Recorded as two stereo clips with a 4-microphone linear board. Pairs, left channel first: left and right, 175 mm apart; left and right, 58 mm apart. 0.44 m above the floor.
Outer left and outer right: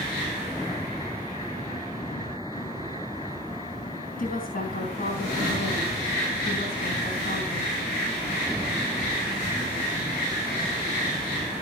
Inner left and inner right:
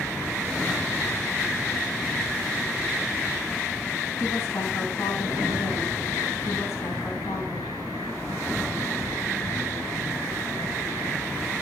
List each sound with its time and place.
4.2 s a woman speaking: 55° left (ahead or behind), 3.5 m